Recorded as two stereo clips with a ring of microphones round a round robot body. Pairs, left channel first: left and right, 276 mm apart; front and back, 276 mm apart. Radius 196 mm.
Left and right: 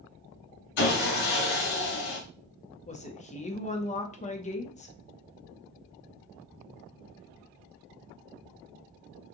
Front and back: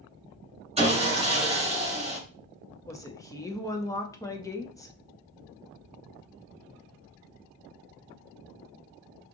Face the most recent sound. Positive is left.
turn(degrees=65)